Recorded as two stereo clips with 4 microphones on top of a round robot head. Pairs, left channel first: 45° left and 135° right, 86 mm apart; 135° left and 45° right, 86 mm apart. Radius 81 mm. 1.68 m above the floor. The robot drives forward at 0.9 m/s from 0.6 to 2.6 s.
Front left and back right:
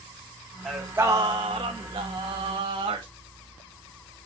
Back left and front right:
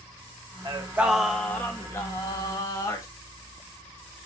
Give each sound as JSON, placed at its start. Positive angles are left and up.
{"t": 0.7, "sound": "singing", "azimuth_deg": -45, "distance_m": 1.0}